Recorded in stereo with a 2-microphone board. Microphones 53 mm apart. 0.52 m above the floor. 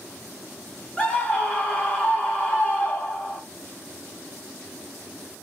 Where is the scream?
25° left (ahead or behind), 1.2 m.